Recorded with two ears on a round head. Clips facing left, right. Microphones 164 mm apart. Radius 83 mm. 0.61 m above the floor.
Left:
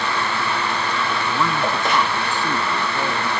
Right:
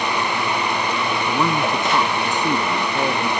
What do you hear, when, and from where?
1.3 s a man speaking: 20° right (ahead or behind); by 3.3 s 15° right (ahead or behind)